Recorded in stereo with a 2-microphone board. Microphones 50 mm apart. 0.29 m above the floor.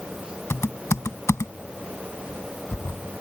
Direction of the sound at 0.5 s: 70° left (ahead or behind).